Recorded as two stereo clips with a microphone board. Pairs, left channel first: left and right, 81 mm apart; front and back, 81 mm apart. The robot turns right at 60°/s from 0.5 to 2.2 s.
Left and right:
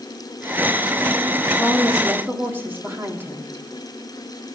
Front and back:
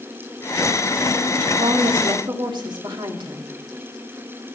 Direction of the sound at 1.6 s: 170° left.